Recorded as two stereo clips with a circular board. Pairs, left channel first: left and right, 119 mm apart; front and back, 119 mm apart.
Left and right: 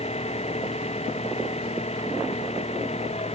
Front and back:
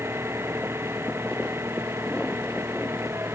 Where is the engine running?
110° left.